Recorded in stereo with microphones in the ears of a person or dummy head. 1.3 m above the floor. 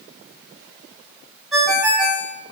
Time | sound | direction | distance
1.5 | a ringtone | 5° right (ahead or behind) | 0.7 m